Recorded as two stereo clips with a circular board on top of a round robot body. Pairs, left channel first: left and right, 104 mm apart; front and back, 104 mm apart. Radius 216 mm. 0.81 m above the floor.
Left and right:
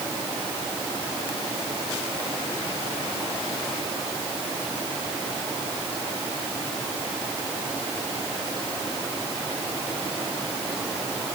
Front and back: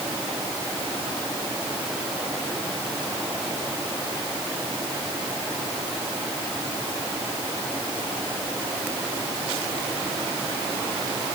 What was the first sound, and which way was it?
Only background noise.